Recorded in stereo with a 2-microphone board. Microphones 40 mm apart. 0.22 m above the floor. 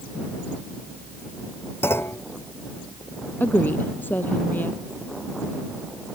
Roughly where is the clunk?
Left.